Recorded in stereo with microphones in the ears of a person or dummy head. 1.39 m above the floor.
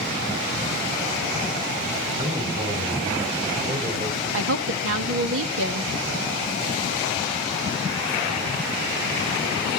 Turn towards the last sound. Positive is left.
turn(degrees=-90)